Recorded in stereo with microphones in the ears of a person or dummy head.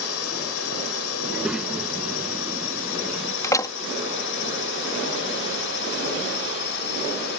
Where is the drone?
70° left (ahead or behind); by 7.4 s 50° left (ahead or behind).